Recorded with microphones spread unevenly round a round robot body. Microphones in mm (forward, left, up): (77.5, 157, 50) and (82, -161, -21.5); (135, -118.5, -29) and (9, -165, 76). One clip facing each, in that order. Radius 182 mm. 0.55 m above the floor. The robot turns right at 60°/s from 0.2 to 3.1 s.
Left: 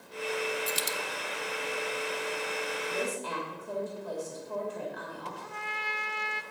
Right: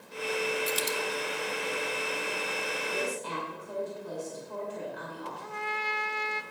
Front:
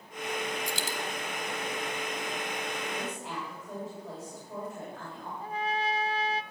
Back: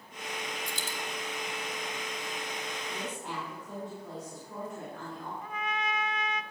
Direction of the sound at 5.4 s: 40° right.